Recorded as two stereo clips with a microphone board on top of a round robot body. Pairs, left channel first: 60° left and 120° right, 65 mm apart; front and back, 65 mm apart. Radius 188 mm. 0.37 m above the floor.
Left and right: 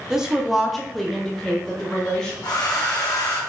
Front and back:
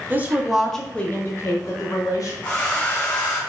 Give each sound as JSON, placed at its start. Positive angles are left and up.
{"t": 0.1, "sound": "a woman speaking", "azimuth_deg": 170, "distance_m": 0.9}
{"t": 2.4, "sound": "a hair dryer", "azimuth_deg": 65, "distance_m": 1.7}